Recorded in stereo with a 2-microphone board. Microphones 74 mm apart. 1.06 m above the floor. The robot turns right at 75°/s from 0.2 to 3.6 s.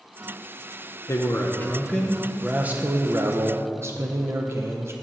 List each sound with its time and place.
1.1 s a man speaking: 100° left, 0.6 m; by 4.9 s 75° right, 0.6 m